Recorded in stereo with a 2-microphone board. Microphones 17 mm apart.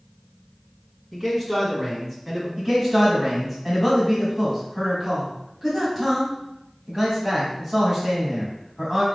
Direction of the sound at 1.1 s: 20° right (ahead or behind).